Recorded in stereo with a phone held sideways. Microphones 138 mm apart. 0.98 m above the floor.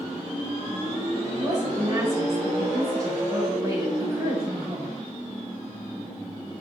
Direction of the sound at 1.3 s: 30° right (ahead or behind).